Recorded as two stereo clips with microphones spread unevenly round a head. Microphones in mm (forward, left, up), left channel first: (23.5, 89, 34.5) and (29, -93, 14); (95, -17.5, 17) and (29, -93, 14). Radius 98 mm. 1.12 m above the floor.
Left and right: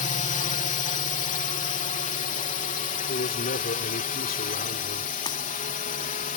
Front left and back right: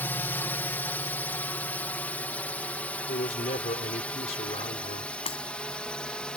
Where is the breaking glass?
25° left.